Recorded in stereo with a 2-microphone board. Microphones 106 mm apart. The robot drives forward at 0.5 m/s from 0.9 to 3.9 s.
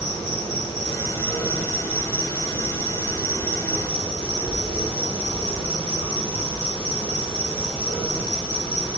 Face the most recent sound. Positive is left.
turn(degrees=50)  # may be behind; listen again after turning